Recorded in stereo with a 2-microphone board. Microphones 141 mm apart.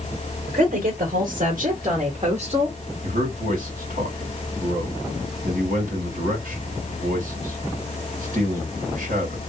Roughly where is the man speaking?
Right.